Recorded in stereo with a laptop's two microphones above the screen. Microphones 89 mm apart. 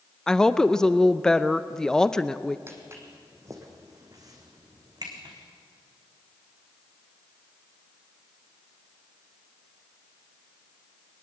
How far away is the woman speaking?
About 0.6 m.